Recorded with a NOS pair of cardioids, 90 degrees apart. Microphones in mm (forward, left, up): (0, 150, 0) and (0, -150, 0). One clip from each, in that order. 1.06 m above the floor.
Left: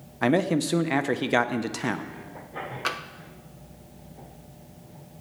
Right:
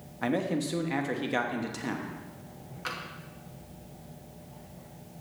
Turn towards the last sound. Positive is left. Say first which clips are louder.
# left 6 dB
turn(degrees=45)